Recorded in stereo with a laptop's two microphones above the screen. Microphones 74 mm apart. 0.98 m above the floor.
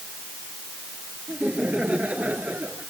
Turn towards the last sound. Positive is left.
turn(degrees=-25)  # may be behind; listen again after turning